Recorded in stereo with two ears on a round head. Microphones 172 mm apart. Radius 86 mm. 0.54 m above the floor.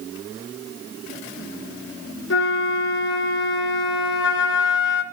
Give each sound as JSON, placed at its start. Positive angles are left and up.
{"t": 2.3, "sound": "a flute", "side_deg": 60, "distance_m": 2.5}